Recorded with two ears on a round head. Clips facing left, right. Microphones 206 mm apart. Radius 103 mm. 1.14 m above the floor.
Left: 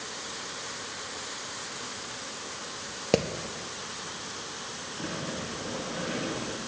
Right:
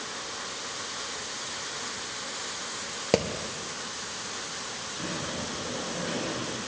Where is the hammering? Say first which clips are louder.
Even; 5° left (ahead or behind), 0.6 m.